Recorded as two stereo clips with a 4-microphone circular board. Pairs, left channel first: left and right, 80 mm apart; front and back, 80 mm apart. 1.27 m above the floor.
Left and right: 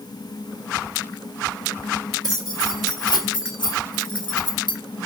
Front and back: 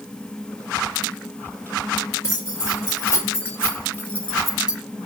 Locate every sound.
2.2 s keys jangling: 55° left, 2.5 m; by 4.8 s 105° left, 0.7 m